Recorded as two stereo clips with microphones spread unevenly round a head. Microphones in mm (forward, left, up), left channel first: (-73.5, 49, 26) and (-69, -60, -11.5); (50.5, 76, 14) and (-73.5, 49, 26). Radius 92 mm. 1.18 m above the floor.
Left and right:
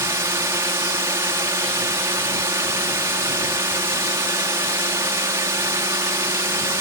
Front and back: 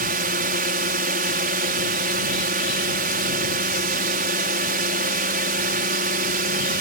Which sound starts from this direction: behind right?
A drone, at 0.0 s.